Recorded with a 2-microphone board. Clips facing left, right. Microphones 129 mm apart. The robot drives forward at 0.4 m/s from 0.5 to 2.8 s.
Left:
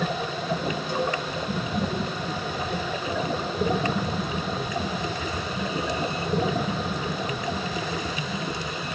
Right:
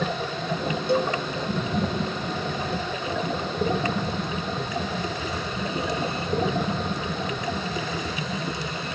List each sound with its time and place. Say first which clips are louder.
0.9 s a cowbell: right 5 dB; 70° right (ahead or behind), 6 m